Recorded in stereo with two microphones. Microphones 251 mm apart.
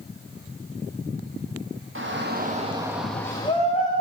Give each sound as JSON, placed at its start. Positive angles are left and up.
{"t": 1.9, "sound": "a shout", "side_deg": -55, "distance_m": 1.5}